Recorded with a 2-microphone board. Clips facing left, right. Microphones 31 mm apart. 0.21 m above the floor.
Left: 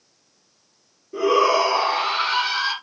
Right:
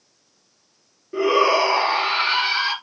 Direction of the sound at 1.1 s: 35° right (ahead or behind).